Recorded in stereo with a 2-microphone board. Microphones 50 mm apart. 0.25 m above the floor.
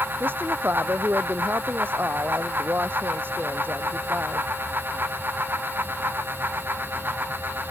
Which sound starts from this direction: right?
A woman speaking, at 0.2 s.